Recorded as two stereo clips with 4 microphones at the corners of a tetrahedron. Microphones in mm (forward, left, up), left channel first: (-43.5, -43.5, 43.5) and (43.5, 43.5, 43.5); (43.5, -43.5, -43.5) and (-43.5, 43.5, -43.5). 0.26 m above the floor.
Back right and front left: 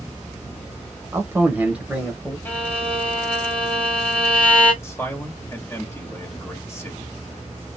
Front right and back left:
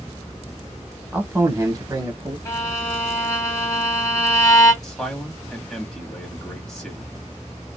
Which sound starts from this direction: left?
A man speaking, at 1.1 s.